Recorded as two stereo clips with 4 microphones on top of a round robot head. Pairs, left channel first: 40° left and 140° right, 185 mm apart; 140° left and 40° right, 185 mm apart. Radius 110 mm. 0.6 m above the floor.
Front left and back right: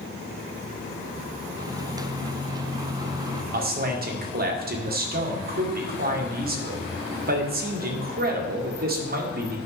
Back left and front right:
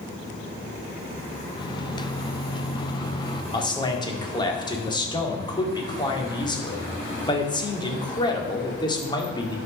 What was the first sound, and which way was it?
A microwave, 175° left.